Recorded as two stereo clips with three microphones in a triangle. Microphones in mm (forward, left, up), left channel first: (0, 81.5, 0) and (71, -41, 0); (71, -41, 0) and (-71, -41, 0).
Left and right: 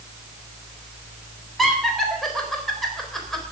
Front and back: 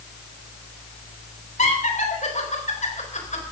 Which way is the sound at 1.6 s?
30° left.